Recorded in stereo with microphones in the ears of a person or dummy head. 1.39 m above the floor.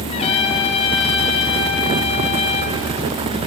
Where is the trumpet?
30° left (ahead or behind), 3 m.